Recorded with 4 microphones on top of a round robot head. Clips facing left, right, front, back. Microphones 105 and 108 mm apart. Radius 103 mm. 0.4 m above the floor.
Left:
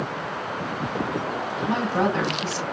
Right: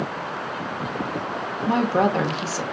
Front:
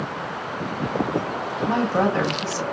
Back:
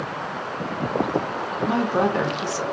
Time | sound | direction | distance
1.7 | a woman speaking | 110° right | 1.2 m